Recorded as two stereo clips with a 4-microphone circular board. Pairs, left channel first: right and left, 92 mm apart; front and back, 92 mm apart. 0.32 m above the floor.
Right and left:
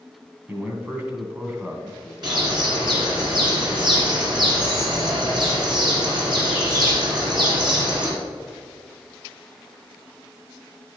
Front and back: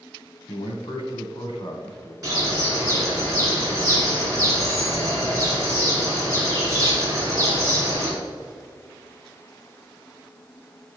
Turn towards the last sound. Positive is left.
turn(degrees=130)